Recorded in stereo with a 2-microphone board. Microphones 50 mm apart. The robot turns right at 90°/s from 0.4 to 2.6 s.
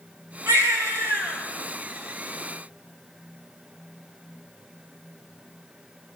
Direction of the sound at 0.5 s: 115° right.